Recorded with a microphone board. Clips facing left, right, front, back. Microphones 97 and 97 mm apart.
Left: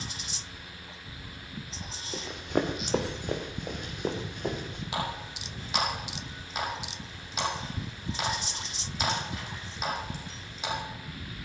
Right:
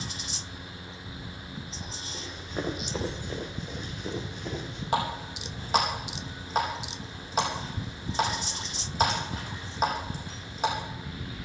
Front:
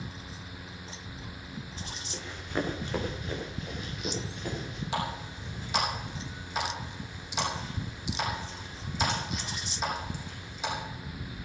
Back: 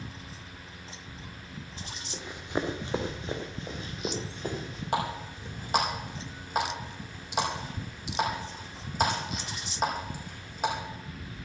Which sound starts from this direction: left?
Running footsteps, at 2.1 s.